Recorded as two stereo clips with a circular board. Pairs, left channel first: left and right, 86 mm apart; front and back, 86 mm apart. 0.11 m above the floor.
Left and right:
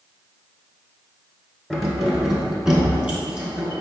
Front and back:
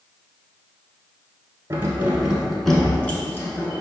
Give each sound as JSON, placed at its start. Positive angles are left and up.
{"t": 1.7, "sound": "keys jangling", "azimuth_deg": 180, "distance_m": 1.1}